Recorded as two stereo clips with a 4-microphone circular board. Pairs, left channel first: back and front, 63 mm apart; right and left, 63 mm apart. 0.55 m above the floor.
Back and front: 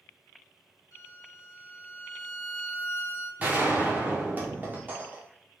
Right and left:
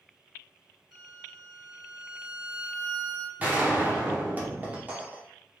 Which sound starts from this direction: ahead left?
A gunshot, at 3.4 s.